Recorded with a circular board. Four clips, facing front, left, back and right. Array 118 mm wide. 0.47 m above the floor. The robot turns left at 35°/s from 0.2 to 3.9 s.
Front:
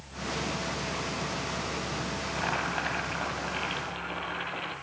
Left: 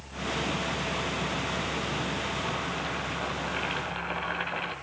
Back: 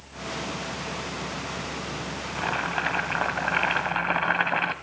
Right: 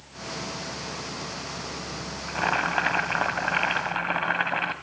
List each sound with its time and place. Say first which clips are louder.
2.3 s boiling: right 6 dB, back 4 dB; 95° right, 1.6 m; by 4.7 s 150° right, 1.6 m